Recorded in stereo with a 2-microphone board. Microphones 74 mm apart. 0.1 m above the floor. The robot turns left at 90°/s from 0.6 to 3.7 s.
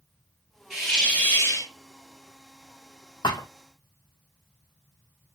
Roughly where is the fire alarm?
I don't hear a fire alarm.